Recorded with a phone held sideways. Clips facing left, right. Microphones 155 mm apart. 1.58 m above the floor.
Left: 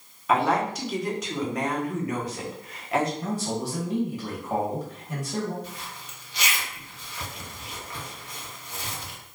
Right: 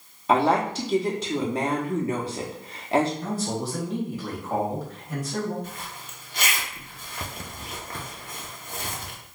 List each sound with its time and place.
0.3 s a woman speaking: 30° right (ahead or behind), 0.7 m
3.2 s a man speaking: 10° left (ahead or behind), 1.4 m
5.6 s a zipper: 50° right (ahead or behind), 0.5 m